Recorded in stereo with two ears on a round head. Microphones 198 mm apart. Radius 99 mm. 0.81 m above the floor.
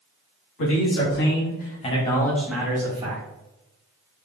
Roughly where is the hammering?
No hammering in this recording.